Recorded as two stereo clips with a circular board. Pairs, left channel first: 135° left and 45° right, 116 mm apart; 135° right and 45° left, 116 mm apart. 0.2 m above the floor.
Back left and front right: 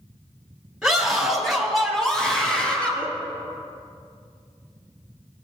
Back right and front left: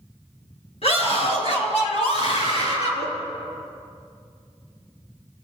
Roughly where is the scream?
Behind right.